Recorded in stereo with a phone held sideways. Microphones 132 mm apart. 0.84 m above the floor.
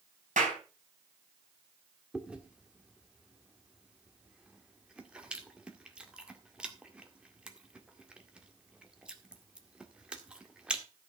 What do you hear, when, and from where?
0.4 s a clap: 75° right (ahead or behind), 4.5 m
2.1 s chewing: 5° right (ahead or behind), 1.8 m